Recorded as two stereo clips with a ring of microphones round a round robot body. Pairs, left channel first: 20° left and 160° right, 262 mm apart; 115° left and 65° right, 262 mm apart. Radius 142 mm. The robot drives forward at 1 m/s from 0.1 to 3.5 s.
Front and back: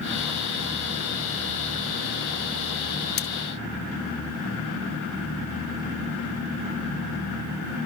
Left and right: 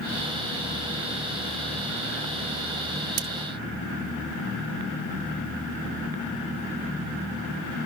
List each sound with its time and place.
3.2 s cutlery clinking: 30° right; by 3.3 s 35° right